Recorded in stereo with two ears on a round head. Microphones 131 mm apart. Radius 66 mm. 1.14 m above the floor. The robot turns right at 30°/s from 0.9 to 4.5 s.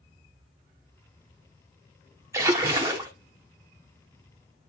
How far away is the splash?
About 0.7 m.